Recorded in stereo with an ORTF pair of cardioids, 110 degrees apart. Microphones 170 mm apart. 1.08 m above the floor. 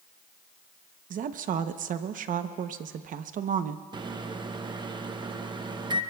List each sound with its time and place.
1.1 s a woman speaking: 50° right, 0.9 m
3.9 s a microwave: 25° right, 0.9 m